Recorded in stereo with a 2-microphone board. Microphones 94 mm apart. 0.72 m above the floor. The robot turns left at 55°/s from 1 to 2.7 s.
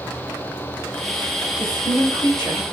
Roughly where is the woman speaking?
Left.